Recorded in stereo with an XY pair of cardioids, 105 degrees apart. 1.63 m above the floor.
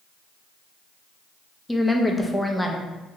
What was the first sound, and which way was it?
A woman speaking, 10° left.